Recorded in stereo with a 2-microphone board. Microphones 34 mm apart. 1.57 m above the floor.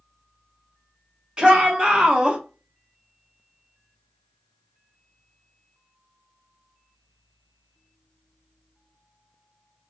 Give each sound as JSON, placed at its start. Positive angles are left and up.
{"t": 1.4, "sound": "a shout", "side_deg": -25, "distance_m": 1.3}